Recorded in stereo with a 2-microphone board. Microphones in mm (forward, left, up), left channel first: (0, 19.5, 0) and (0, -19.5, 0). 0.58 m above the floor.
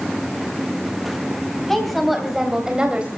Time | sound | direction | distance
1.7 | a woman speaking | 5° left (ahead or behind) | 3.5 m